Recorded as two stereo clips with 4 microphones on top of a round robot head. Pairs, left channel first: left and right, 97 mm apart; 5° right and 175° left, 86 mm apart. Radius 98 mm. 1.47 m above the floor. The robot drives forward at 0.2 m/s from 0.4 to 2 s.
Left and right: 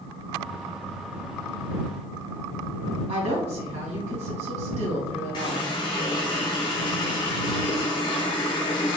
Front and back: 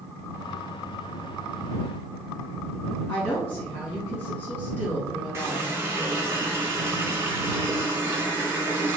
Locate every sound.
3.1 s a woman speaking: 75° right, 1.6 m
5.3 s a running tap: 120° left, 0.6 m